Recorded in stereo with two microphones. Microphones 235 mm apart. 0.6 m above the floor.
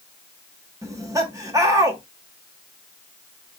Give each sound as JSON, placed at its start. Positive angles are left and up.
{"t": 0.8, "sound": "laughter", "side_deg": -15, "distance_m": 0.9}